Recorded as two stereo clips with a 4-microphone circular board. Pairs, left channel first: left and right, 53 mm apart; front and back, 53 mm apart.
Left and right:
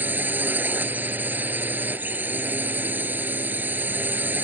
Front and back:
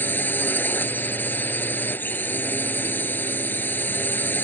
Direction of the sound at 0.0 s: 45° right.